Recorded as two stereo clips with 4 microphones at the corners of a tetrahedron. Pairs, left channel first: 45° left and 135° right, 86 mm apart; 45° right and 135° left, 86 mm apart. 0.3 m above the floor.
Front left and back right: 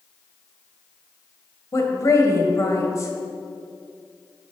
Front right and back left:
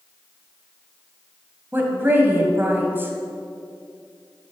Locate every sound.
1.7 s a woman speaking: 80° left, 1.6 m